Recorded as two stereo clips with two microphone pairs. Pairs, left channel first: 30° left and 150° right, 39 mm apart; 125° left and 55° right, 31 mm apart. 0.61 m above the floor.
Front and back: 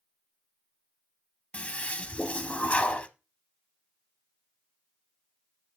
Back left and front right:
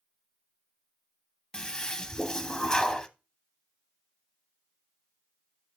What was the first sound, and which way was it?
A toilet flushing, 70° left.